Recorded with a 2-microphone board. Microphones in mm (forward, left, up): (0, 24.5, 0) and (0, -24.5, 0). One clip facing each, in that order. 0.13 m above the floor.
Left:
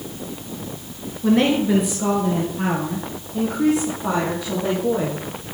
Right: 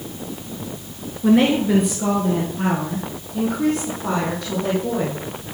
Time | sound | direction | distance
1.2 | a woman speaking | 5° right (ahead or behind) | 1.8 m